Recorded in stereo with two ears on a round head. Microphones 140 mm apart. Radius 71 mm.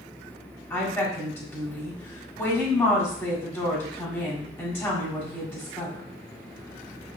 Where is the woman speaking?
15° left (ahead or behind), 1.7 m.